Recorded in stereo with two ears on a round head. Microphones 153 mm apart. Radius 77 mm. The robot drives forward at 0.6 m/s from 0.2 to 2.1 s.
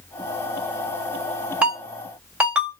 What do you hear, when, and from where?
1.6 s a ringtone: 5° right (ahead or behind), 1.8 m